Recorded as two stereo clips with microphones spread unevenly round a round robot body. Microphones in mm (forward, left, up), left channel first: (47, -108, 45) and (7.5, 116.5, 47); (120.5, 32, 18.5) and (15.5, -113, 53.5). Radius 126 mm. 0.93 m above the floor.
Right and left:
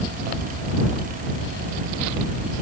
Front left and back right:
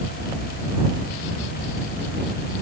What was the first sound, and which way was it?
Only background noise.